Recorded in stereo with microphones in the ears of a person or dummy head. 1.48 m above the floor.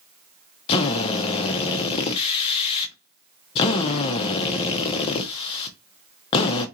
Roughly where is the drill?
Left.